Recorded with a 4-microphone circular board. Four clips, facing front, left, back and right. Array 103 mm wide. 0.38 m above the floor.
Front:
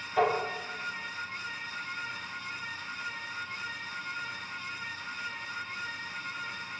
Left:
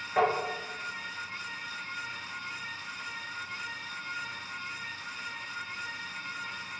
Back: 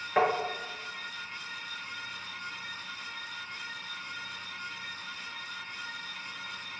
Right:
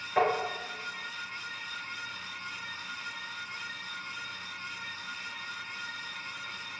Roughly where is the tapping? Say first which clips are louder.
Even, back 1 dB; behind.